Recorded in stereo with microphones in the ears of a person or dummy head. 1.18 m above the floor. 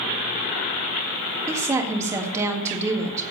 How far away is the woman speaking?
About 1.6 m.